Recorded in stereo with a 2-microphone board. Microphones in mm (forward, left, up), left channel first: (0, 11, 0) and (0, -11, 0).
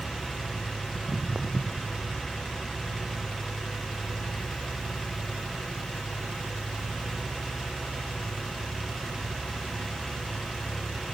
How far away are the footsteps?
About 0.8 m.